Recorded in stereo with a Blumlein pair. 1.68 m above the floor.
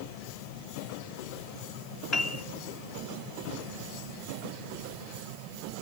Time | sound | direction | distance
2.1 | a piano | 35° left | 1.4 m